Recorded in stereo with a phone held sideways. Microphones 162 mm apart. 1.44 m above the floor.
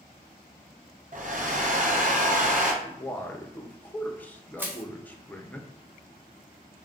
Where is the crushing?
10° right (ahead or behind), 0.6 m.